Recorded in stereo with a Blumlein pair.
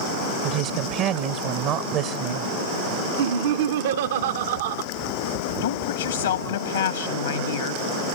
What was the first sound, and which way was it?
A woman speaking, 40° right.